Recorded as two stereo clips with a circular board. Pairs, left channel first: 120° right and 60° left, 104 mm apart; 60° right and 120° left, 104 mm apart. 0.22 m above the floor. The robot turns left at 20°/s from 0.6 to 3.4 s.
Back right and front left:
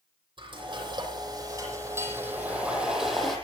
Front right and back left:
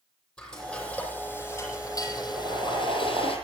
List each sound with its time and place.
0.4 s frying: 25° left, 9.5 m; by 3.4 s 30° right, 9.5 m
2.4 s boiling: 150° left, 5 m; by 3.3 s 130° left, 5 m